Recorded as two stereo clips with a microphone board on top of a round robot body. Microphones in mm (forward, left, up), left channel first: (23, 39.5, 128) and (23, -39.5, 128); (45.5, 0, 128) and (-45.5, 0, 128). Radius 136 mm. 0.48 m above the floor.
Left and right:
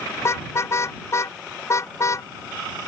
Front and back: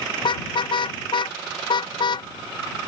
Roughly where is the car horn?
Ahead left.